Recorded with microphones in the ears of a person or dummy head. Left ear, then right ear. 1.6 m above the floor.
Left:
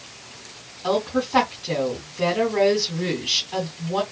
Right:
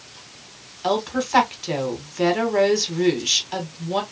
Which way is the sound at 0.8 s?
60° right (ahead or behind).